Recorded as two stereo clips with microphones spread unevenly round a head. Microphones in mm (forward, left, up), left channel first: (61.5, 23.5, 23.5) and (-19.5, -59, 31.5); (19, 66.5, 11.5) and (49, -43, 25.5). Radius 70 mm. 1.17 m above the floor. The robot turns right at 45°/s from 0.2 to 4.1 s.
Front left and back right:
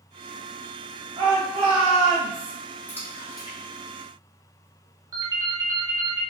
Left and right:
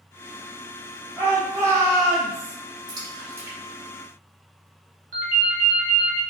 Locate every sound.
1.2 s a shout: 165° right, 1.0 m; by 2.5 s 105° right, 1.0 m
2.9 s a splash: 30° right, 1.6 m; by 4.7 s 25° left, 1.6 m
5.1 s a ringtone: 75° right, 1.0 m